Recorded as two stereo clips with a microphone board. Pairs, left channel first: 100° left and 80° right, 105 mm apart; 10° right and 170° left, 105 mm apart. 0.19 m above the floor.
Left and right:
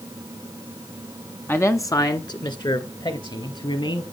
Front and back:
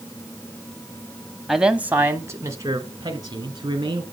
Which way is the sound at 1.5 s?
90° left.